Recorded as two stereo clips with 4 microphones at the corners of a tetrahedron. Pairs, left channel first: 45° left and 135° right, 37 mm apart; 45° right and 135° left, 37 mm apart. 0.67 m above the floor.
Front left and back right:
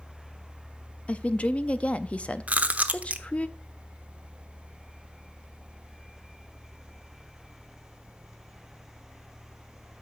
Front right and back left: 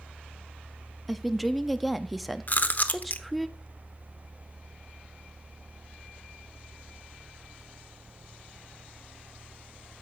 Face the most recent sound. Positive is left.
turn(degrees=-85)